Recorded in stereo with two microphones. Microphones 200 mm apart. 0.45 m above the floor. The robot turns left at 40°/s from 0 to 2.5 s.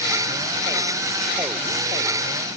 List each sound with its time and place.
Only background noise.